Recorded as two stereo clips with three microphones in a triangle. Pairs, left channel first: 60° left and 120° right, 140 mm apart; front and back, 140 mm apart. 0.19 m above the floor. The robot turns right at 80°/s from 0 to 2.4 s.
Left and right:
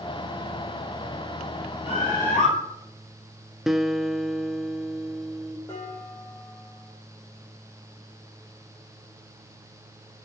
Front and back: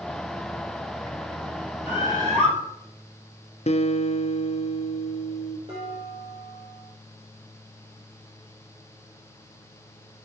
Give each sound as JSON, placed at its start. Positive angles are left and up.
{"t": 1.9, "sound": "a bird", "azimuth_deg": 100, "distance_m": 4.5}
{"t": 3.7, "sound": "a guitar", "azimuth_deg": -35, "distance_m": 0.5}
{"t": 5.7, "sound": "dishes clattering", "azimuth_deg": 135, "distance_m": 5.0}